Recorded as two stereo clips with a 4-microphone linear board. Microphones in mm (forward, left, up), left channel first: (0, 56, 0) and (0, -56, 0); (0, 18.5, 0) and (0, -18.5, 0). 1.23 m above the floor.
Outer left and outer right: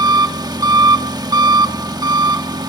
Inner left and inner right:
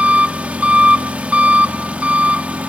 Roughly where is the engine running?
Right.